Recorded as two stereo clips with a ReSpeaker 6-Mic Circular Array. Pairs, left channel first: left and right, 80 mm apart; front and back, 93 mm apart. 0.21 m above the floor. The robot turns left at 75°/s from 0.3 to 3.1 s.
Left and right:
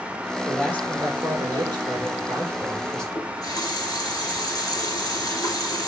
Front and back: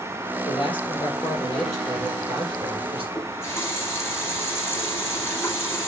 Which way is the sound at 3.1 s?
60° left.